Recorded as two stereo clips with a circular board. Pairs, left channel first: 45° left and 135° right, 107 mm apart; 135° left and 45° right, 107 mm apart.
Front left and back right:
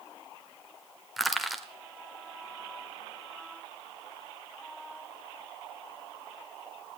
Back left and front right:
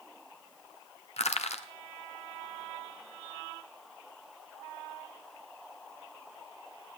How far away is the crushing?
About 0.9 m.